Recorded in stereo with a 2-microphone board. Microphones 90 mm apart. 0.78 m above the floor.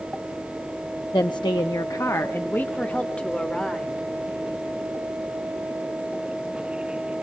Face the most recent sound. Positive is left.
turn(degrees=5)  # may be behind; listen again after turning